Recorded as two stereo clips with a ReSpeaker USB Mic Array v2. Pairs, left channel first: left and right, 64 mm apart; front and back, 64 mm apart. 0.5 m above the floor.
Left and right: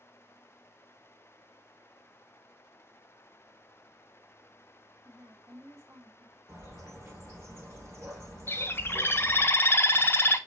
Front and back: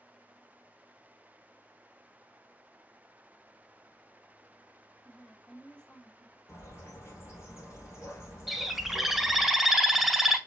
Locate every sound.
5.0 s a woman speaking: 80° right, 2.0 m; by 6.4 s 65° right, 2 m
6.5 s a bird: 45° right, 2 m
8.5 s a bird: 95° left, 0.6 m